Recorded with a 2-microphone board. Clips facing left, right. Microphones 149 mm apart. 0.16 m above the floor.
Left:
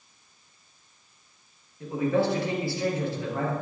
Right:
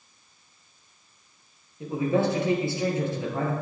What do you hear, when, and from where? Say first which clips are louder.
1.8 s a man speaking: even; 20° right (ahead or behind), 3.5 m